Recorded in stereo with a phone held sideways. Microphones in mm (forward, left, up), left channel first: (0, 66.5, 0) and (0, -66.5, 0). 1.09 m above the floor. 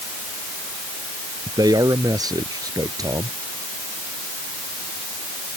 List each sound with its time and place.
1.5 s a man speaking: 25° right (ahead or behind)